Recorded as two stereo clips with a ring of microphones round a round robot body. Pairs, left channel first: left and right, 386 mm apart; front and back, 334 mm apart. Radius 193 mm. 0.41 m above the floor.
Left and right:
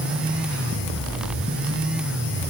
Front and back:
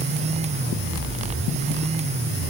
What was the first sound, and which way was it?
Only background noise.